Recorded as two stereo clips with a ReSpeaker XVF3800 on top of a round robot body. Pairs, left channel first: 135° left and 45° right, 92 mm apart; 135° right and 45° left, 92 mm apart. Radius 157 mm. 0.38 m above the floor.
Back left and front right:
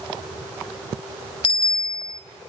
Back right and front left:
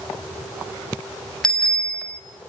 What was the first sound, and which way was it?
A bicycle bell, 140° left.